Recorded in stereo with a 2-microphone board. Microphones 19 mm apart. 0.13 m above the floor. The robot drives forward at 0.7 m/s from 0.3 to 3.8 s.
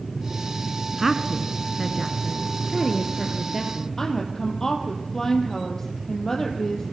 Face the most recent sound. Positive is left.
turn(degrees=25)  # may be behind; listen again after turning